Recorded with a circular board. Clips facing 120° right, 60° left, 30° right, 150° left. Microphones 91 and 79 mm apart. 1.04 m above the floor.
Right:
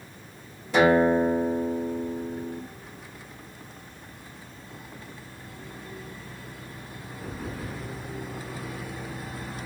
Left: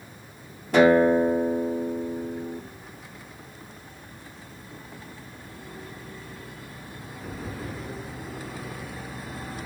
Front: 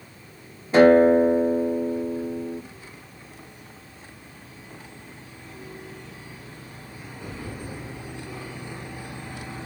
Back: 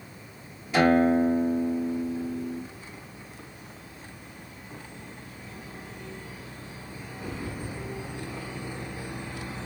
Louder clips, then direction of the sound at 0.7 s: Left 2 dB, front 7 dB; 25° left.